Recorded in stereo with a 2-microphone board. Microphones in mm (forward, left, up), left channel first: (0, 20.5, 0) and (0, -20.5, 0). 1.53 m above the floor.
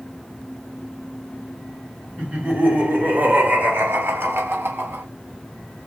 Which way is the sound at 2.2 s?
30° right (ahead or behind).